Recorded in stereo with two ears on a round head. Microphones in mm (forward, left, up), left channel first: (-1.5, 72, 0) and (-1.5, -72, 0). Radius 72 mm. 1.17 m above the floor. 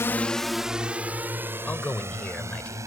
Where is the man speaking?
10° left (ahead or behind).